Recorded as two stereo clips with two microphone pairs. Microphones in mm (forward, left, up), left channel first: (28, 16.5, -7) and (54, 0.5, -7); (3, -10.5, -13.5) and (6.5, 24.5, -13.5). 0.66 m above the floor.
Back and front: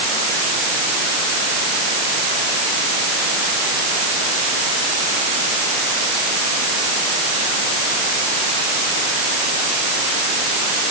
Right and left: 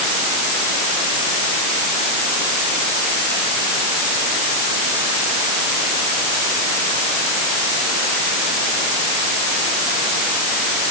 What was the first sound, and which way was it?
Only background noise.